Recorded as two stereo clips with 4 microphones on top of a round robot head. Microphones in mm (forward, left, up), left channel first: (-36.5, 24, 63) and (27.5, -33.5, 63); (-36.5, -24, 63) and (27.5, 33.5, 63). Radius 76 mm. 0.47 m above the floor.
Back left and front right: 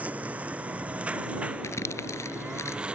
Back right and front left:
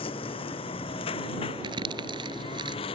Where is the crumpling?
75° left.